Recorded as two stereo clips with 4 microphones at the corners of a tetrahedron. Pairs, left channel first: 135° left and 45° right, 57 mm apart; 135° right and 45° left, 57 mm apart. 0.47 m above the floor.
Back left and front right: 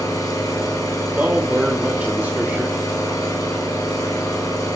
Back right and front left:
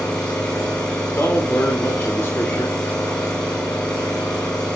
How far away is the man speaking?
About 1.6 m.